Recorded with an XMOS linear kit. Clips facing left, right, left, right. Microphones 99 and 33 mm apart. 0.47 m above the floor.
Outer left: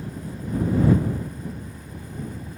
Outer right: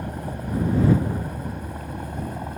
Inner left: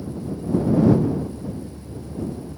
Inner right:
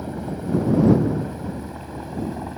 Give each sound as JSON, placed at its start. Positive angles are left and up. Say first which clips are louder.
{"t": 0.0, "sound": "a helicopter", "louder": "outer right 3 dB, inner right 1 dB", "side_deg": -60}